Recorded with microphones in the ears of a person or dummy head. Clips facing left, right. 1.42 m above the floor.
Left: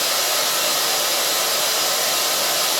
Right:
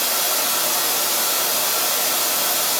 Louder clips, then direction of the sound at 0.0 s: Left 2 dB; 5° left (ahead or behind).